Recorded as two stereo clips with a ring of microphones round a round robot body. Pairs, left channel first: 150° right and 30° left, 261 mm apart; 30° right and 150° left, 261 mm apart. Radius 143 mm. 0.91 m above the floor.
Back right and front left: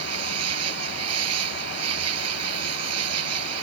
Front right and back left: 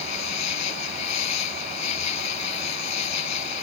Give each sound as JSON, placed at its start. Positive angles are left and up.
{"t": 0.0, "sound": "an insect", "azimuth_deg": -5}